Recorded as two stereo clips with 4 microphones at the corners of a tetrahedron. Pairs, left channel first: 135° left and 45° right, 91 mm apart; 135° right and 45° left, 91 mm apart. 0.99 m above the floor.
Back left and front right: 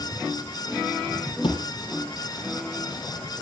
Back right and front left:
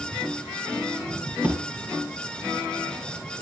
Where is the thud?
120° left, 7 m.